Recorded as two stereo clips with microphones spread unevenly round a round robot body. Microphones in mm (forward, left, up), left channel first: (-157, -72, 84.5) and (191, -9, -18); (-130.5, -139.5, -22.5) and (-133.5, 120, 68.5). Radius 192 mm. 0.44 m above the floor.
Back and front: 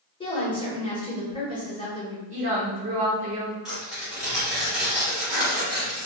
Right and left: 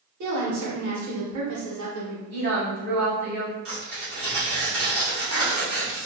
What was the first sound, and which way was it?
A woman speaking, 105° left.